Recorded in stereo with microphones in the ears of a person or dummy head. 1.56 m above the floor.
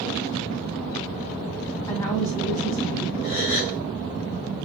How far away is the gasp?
About 3 m.